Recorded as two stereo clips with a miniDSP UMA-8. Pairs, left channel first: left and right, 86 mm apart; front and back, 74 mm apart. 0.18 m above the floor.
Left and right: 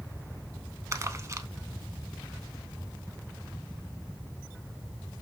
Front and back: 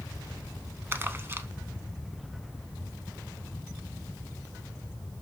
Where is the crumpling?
130° right, 0.5 m.